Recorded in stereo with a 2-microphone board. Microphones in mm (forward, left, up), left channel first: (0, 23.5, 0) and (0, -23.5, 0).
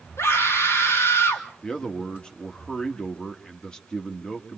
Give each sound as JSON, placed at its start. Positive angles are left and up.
{"t": 0.2, "sound": "a scream", "side_deg": 75, "distance_m": 3.5}
{"t": 1.6, "sound": "a man speaking", "side_deg": 15, "distance_m": 1.7}